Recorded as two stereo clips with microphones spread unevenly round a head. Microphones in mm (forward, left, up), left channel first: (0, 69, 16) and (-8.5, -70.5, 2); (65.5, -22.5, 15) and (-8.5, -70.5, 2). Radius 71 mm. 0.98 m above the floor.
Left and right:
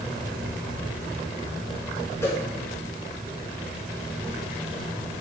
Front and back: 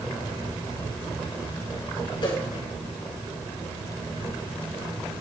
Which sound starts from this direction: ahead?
A whoosh, at 2.2 s.